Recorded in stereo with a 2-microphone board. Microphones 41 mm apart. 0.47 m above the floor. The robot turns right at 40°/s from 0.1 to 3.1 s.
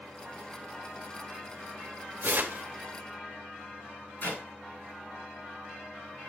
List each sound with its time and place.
2.2 s tearing paper: 60° right (ahead or behind), 1.1 m; by 2.6 s 55° right (ahead or behind), 1.1 m
4.2 s a clap: 50° left (ahead or behind), 5 m